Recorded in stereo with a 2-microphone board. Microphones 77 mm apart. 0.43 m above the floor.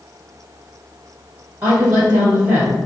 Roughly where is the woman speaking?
Right.